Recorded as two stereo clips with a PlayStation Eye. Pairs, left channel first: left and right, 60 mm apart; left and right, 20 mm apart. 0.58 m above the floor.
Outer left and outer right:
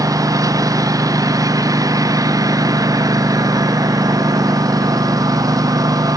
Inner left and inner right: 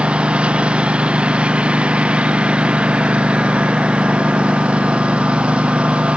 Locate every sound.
0.0 s a lawn mower: 75° right (ahead or behind); by 6.2 s 85° right